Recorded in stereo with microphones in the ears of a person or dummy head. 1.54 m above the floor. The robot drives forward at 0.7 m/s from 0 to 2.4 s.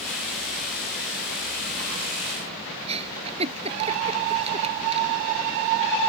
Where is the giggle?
35° right (ahead or behind).